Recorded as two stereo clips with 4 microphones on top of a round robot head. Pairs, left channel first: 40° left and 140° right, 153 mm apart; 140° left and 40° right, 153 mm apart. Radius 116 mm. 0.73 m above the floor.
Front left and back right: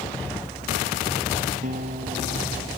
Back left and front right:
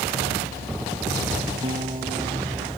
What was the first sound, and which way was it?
A guitar, 100° right.